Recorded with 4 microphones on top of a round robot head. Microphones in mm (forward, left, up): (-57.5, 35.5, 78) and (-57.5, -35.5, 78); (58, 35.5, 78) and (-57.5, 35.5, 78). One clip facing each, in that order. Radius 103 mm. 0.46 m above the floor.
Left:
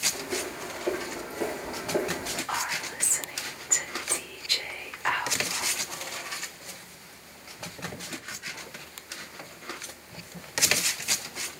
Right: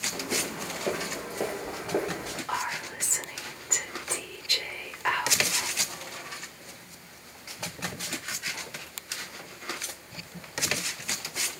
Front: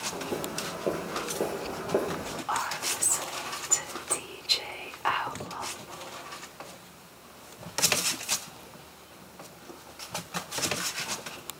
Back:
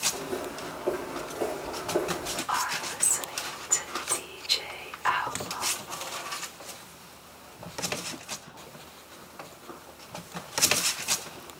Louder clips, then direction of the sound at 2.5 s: Right 1 dB, back 1 dB; straight ahead.